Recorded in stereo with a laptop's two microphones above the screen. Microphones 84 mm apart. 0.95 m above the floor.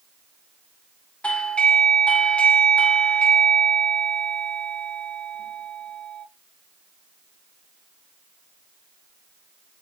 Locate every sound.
1.2 s a doorbell: 15° left (ahead or behind), 0.9 m